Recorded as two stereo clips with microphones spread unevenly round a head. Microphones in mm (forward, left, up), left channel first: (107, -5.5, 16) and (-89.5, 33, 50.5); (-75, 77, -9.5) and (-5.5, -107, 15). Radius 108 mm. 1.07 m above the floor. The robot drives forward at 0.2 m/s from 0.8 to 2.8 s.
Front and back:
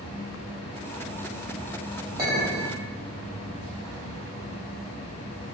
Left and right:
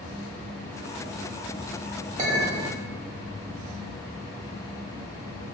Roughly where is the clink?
Behind right.